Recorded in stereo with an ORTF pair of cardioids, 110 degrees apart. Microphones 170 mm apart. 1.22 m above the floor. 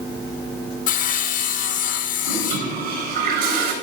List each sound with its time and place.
0.9 s sawing: 55° left, 0.8 m
2.2 s a toilet flushing: 70° right, 3.5 m